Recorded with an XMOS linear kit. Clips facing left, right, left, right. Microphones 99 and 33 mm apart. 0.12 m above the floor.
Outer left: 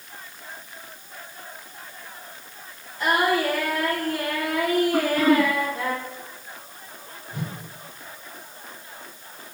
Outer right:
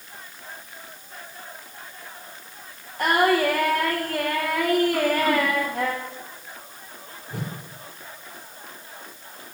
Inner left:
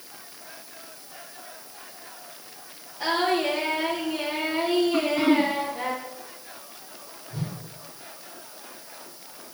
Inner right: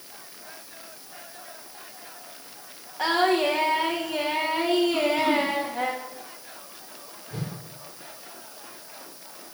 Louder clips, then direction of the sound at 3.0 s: Outer right 2 dB, inner right 2 dB; 60° right (ahead or behind).